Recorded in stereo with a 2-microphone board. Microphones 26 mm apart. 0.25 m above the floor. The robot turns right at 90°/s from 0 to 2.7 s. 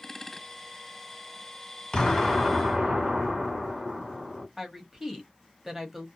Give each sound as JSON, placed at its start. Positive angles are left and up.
{"t": 1.9, "sound": "an explosion", "azimuth_deg": 145, "distance_m": 1.9}
{"t": 4.6, "sound": "a woman speaking", "side_deg": -15, "distance_m": 1.0}